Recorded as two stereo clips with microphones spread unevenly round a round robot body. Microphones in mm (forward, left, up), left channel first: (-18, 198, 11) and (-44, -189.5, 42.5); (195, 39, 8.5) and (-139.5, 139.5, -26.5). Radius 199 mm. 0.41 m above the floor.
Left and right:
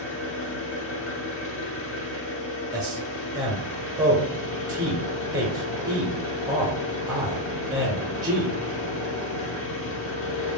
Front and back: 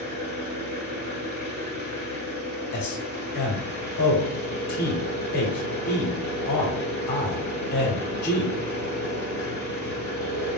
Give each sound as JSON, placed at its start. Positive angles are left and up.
{"t": 0.0, "sound": "an engine running", "azimuth_deg": 120, "distance_m": 1.2}
{"t": 2.7, "sound": "a man speaking", "azimuth_deg": -20, "distance_m": 0.7}